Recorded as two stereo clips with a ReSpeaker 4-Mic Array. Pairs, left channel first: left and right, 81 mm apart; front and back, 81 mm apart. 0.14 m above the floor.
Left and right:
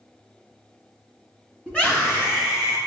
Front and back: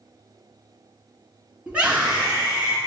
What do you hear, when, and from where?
1.7 s a scream: 140° left, 1.6 m; by 2.8 s 120° left, 1.9 m